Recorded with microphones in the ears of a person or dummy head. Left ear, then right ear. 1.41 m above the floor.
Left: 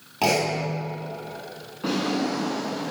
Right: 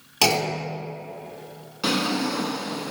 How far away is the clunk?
About 3.5 m.